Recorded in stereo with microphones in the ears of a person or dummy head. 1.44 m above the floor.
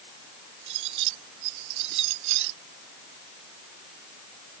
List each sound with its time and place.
0.7 s cutlery clinking: 70° right (ahead or behind)